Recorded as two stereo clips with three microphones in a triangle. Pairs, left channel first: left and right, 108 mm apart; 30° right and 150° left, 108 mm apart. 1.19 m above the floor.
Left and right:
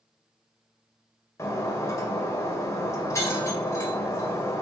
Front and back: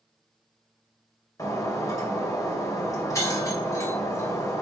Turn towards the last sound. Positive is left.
turn(degrees=30)